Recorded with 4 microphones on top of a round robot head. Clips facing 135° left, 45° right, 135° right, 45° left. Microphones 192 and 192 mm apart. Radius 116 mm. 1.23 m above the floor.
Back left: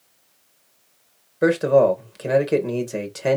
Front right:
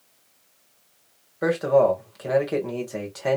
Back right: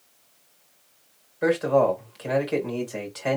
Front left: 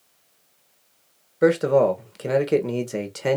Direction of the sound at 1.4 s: 75° left.